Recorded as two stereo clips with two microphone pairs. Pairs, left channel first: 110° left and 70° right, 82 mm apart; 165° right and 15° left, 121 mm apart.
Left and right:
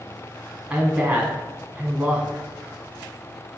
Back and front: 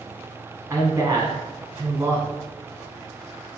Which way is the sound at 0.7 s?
10° right.